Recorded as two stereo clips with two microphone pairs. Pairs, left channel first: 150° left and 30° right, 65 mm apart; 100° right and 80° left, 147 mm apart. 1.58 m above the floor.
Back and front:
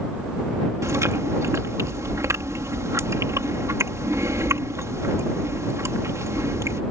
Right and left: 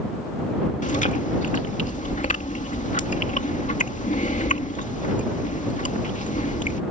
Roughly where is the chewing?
Ahead right.